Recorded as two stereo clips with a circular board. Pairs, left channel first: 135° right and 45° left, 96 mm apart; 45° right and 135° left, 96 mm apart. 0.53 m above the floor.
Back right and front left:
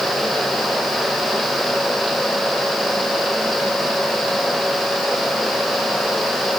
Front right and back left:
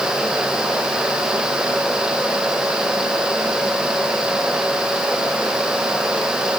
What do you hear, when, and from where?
Only background noise.